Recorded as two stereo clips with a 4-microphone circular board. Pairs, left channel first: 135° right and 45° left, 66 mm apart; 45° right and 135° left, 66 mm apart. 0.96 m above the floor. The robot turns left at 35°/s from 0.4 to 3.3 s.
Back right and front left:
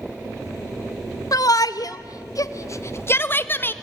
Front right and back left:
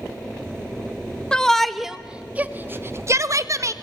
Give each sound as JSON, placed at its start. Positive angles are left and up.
{"t": 1.3, "sound": "a shout", "azimuth_deg": -120, "distance_m": 1.3}